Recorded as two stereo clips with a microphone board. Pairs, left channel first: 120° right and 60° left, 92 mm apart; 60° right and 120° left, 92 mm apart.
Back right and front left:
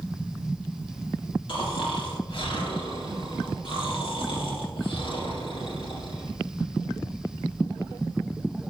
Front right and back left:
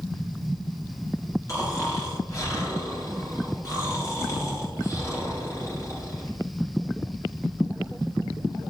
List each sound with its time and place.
1.5 s snoring: 110° right, 2 m